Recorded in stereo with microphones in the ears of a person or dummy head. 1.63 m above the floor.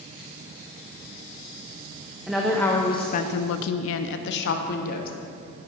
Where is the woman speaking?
Centre (ahead or behind), 1.0 m; by 5.1 s 50° left (ahead or behind), 1.5 m.